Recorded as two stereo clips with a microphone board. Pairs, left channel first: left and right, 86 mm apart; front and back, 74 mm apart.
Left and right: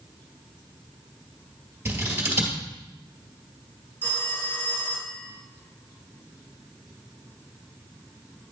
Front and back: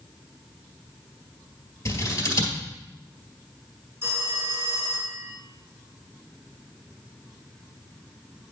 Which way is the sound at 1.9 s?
30° right.